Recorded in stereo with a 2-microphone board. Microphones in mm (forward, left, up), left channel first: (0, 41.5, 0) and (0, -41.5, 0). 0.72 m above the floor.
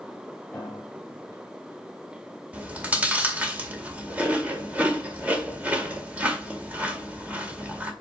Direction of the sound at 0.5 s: 15° left (ahead or behind).